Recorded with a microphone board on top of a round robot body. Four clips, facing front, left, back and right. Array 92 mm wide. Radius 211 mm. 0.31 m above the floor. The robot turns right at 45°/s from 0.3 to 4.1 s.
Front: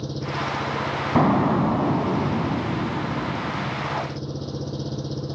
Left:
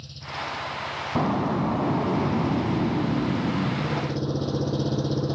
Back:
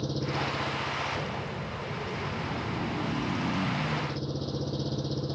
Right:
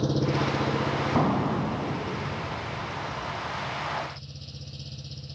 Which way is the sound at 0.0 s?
85° right.